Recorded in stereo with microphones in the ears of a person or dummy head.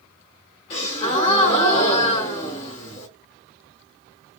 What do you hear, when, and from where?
0.7 s a gasp: 30° left (ahead or behind), 1.5 m